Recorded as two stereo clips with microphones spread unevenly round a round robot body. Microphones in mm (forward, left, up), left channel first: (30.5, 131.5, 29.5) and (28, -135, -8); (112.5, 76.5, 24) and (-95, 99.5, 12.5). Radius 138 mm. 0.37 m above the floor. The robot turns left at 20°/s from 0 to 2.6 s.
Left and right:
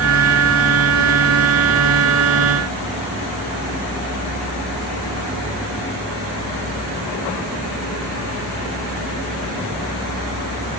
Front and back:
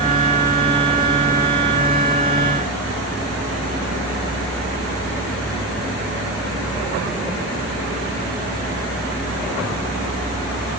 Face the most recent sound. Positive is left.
No sound to turn to.